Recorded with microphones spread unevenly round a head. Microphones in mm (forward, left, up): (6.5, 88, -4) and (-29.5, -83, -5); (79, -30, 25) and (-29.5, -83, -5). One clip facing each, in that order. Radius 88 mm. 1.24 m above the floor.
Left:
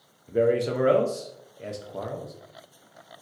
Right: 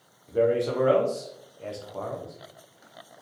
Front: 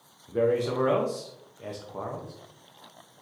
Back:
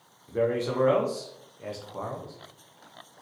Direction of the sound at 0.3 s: 130° left.